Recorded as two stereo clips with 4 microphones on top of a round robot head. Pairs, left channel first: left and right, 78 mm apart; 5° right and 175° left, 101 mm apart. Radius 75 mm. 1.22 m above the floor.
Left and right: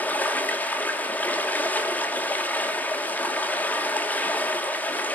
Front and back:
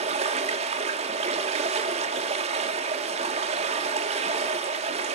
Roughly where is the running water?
Behind.